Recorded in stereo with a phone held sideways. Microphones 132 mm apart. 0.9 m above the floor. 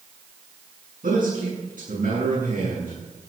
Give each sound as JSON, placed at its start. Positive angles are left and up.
{"t": 1.0, "sound": "a man speaking", "side_deg": -80, "distance_m": 8.5}